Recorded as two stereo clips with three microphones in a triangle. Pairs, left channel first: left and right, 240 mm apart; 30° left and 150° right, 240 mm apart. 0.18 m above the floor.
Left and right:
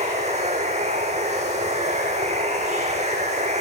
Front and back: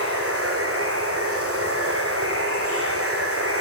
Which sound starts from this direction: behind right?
Running water, at 0.0 s.